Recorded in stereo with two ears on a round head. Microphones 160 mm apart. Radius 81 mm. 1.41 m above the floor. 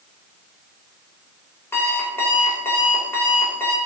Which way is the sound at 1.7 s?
15° left (ahead or behind).